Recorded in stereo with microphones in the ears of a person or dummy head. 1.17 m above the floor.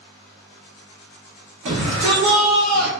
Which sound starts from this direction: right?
A shout, at 1.6 s.